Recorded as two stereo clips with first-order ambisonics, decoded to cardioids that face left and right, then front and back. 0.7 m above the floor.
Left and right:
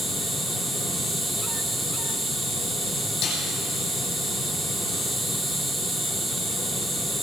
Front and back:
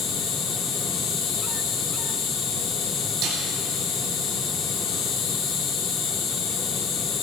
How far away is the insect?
About 2 m.